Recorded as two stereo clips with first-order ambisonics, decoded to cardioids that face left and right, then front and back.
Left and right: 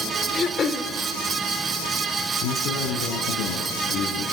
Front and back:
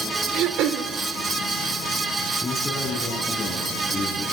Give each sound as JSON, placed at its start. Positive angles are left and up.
{"t": 0.3, "sound": "throat clearing", "azimuth_deg": 150, "distance_m": 1.8}
{"t": 2.4, "sound": "a man speaking", "azimuth_deg": 80, "distance_m": 6.0}